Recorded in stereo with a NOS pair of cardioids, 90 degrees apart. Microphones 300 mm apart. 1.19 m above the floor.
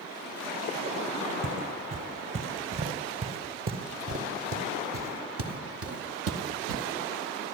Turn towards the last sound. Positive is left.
turn(degrees=-60)